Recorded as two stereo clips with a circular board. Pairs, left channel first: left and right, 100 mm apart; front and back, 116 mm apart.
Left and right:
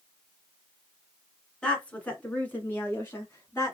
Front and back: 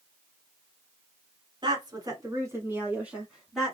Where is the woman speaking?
165° left, 1.5 m; by 3.8 s 80° left, 1.2 m.